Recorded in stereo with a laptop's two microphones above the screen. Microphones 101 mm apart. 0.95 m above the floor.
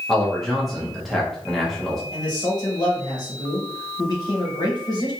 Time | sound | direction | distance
0.1 | a man speaking | centre (ahead or behind) | 0.5 m
2.1 | a man speaking | 45° left (ahead or behind) | 1.2 m